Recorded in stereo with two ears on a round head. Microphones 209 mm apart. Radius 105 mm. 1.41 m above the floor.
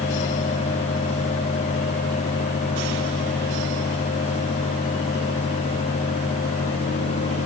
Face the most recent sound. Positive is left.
No sound to turn to.